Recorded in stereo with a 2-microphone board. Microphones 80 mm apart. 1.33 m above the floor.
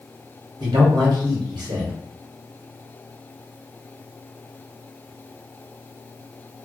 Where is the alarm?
No alarm in this recording.